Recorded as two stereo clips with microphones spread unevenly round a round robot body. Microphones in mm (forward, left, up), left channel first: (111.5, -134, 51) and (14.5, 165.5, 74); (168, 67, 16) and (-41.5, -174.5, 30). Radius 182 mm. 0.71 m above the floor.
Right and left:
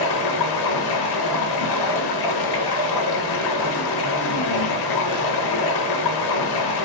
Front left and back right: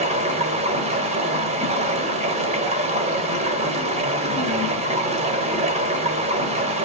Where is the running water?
60° right, 0.8 m.